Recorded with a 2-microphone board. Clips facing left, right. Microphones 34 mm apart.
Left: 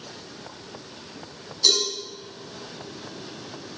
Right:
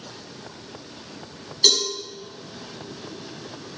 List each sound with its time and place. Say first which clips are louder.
1.6 s a cowbell: right 2 dB; 60° right (ahead or behind), 6 m